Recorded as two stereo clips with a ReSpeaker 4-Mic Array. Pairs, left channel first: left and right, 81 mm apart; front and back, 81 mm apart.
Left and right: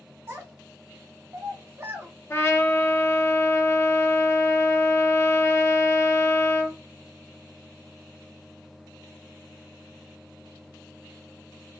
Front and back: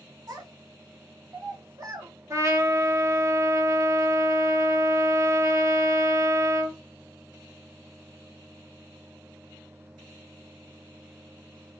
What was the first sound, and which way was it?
A child speaking, 135° right.